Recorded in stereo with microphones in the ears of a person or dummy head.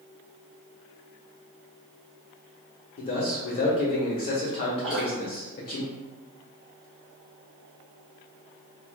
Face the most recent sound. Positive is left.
turn(degrees=0)  # may be behind; listen again after turning